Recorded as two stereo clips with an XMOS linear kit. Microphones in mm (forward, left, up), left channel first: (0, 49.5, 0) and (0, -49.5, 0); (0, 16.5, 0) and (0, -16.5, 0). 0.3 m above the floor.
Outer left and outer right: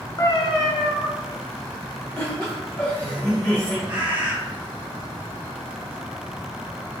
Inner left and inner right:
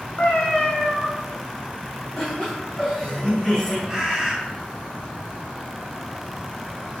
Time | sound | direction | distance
0.2 | a cat meowing | 40° left (ahead or behind) | 0.6 m
2.2 | laughter | 20° left (ahead or behind) | 1.4 m
3.9 | a bird | 20° right (ahead or behind) | 1.1 m